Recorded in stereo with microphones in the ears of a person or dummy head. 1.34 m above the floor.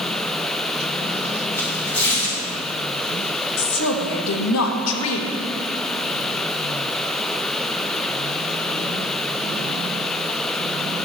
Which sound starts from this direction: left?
A woman speaking, at 3.6 s.